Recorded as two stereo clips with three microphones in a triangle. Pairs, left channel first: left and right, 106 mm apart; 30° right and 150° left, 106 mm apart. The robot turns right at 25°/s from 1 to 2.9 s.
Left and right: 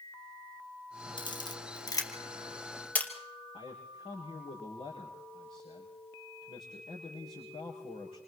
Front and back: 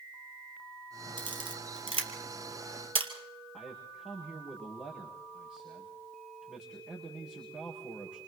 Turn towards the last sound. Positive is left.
turn(degrees=75)